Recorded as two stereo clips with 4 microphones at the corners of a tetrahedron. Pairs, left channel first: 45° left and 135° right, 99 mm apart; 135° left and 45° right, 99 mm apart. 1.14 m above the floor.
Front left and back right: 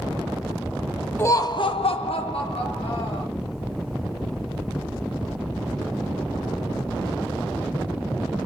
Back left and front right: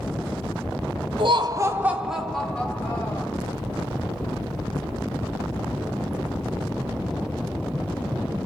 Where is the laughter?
20° right, 0.7 m; by 3.3 s 65° left, 1.9 m.